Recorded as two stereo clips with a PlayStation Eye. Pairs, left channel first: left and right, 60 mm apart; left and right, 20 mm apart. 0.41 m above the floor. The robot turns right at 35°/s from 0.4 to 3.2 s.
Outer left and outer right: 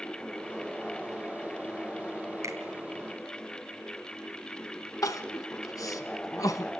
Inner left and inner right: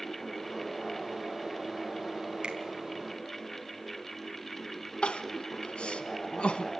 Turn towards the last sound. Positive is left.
turn(degrees=85)